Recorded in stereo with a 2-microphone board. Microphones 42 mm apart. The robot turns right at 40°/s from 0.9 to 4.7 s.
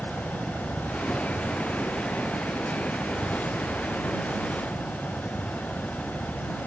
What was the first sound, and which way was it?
A helicopter, 40° right (ahead or behind).